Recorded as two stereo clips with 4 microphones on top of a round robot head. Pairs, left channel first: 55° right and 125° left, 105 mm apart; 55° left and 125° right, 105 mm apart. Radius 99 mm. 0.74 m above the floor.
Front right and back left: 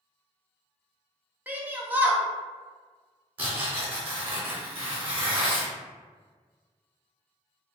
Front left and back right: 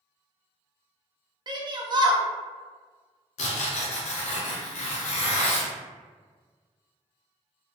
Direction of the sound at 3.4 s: 55° left.